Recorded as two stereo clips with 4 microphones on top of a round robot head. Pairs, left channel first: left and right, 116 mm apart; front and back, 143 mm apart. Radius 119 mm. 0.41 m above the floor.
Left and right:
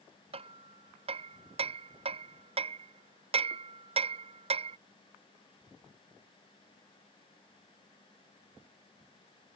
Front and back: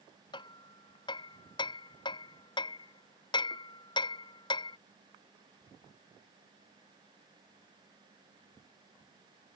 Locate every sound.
0.3 s hammering: 60° right